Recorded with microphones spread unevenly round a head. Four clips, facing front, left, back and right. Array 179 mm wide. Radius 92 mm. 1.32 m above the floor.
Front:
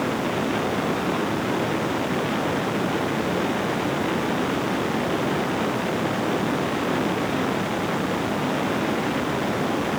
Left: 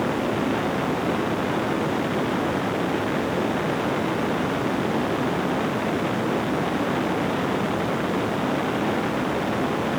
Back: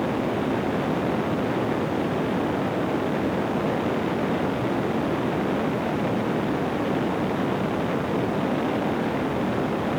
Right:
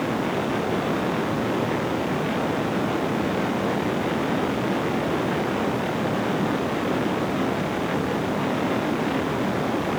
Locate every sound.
Only background noise.